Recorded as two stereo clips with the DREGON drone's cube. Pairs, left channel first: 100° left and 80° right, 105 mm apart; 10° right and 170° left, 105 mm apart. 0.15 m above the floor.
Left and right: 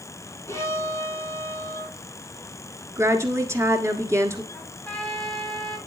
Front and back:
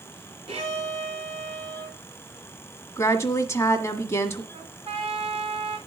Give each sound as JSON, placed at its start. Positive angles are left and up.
{"t": 0.5, "sound": "a violin", "azimuth_deg": 160, "distance_m": 3.0}
{"t": 3.0, "sound": "a woman speaking", "azimuth_deg": -45, "distance_m": 1.4}
{"t": 4.5, "sound": "a trumpet", "azimuth_deg": 180, "distance_m": 4.0}